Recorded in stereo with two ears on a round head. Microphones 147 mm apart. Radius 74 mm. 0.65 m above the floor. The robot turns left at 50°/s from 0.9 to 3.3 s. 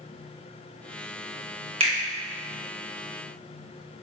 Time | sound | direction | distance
1.8 | a finger snap | 35° right (ahead or behind) | 0.8 m